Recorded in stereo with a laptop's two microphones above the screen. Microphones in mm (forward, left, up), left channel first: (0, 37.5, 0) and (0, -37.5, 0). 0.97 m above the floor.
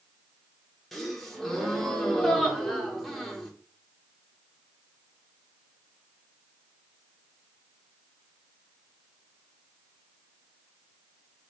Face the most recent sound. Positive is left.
turn(degrees=0)  # may be behind; listen again after turning